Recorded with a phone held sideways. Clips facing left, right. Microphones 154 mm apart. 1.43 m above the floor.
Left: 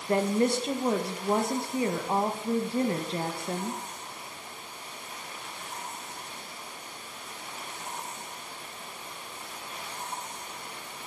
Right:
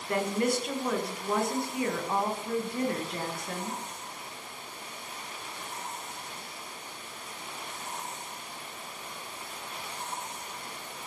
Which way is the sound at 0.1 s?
30° left (ahead or behind).